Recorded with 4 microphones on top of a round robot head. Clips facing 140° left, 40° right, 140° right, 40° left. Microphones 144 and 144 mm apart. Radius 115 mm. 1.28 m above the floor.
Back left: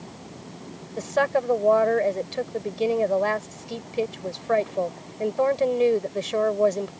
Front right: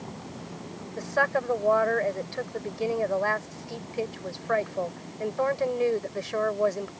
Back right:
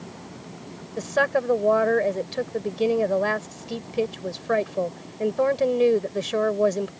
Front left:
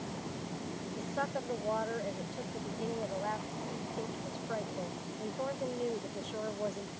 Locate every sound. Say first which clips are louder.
1.0 s a woman speaking: back left 4 dB, back right 15 dB; 150° right